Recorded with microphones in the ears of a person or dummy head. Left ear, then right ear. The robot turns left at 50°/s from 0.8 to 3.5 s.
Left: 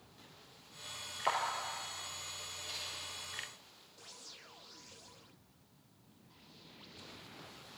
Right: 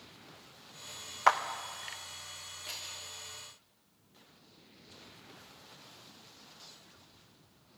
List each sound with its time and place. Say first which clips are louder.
1.3 s a clap: right 8 dB; 60° right (ahead or behind), 0.7 m; by 1.4 s 55° right (ahead or behind), 0.7 m
2.6 s scissors: right 1 dB; 45° right (ahead or behind), 3 m; by 3.0 s 30° right (ahead or behind), 3 m